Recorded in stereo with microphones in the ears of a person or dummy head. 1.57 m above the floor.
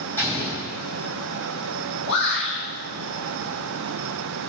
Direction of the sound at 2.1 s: 55° left (ahead or behind).